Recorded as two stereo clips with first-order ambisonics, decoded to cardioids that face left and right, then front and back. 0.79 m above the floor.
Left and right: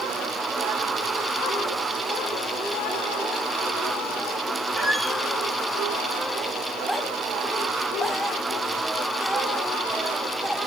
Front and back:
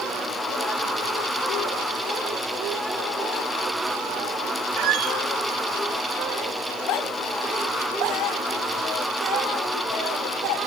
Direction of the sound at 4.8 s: 165° left.